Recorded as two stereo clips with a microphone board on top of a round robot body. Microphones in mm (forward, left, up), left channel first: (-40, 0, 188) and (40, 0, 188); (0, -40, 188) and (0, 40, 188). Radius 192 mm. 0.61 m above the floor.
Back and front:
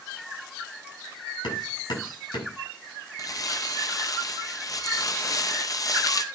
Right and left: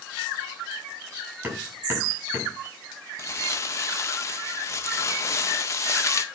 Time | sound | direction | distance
1.4 | hammering | 155° left | 7 m
3.2 | crumpling | 140° right | 2.0 m